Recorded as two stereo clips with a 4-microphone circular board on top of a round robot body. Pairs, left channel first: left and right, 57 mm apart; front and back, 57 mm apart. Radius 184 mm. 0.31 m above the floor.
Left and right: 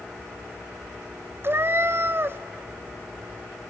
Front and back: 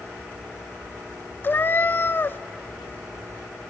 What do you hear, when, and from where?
1.4 s a cat meowing: 50° right, 0.5 m